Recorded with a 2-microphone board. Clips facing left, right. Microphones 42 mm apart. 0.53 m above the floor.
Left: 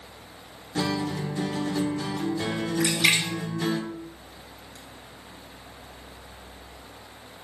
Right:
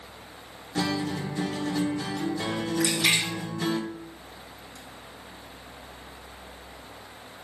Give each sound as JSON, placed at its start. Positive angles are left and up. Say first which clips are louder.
{"t": 0.8, "sound": "a guitar", "louder": "left 1 dB", "side_deg": 0, "distance_m": 0.6}
{"t": 2.8, "sound": "a splash", "louder": "left 2 dB", "side_deg": 45, "distance_m": 1.9}